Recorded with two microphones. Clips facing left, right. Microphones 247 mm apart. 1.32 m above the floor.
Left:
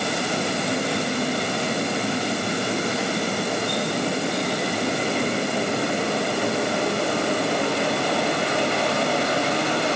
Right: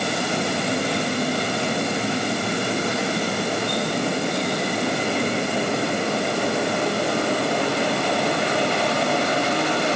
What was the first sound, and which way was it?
Only background noise.